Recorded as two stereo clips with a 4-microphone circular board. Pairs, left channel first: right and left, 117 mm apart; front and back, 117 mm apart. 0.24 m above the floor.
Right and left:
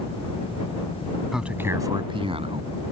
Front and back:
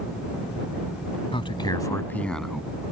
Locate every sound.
1.3 s a man speaking: 5° left; by 2.9 s 100° left